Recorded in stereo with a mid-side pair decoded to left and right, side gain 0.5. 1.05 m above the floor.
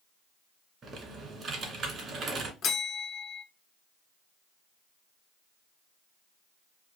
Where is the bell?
55° left, 1.0 m.